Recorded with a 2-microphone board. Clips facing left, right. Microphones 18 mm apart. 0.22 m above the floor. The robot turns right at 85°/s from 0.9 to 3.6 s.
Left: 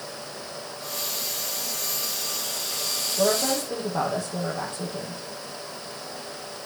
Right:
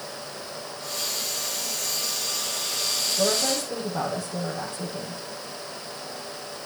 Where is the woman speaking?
125° left, 8 m; by 5.2 s 160° left, 8 m.